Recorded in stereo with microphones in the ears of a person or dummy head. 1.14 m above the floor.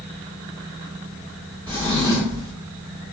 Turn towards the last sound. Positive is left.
turn(degrees=15)  # may be behind; listen again after turning